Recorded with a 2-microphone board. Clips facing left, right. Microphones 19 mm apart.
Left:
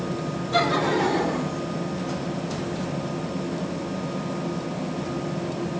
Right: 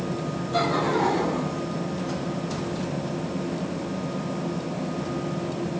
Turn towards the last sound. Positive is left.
turn(degrees=45)  # may be behind; listen again after turning